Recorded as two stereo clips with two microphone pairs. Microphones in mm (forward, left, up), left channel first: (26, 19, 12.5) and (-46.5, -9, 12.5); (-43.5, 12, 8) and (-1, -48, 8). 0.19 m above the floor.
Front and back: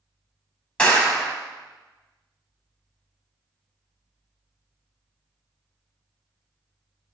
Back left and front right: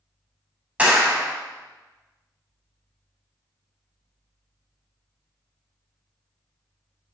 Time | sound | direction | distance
0.8 | a clap | 30° right | 1.3 m